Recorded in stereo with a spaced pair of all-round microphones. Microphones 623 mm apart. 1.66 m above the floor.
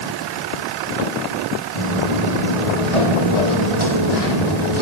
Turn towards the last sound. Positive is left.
turn(degrees=60)  # may be behind; listen again after turning